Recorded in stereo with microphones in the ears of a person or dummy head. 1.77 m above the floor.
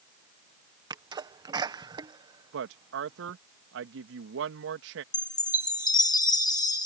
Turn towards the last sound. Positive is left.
turn(degrees=20)  # may be behind; listen again after turning